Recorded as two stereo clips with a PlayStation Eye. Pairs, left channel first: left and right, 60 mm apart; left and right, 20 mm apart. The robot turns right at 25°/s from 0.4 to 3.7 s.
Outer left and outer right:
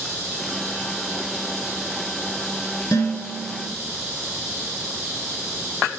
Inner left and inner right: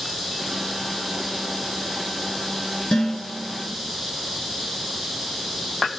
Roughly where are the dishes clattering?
Left.